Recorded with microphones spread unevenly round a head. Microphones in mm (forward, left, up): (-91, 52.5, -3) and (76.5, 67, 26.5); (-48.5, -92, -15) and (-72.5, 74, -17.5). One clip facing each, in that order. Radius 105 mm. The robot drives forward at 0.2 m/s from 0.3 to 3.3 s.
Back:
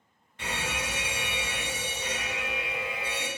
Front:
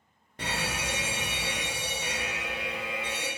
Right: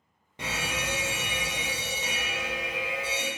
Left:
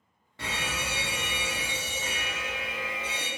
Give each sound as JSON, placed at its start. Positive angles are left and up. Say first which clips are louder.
{"t": 0.4, "sound": "a fire alarm", "louder": "front 1 dB, right 1 dB", "azimuth_deg": -25, "distance_m": 0.7}